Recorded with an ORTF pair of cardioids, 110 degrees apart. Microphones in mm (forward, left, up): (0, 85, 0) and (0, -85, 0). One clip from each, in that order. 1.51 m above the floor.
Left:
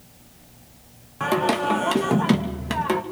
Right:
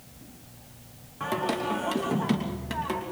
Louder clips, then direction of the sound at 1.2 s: Left 7 dB; 45° left.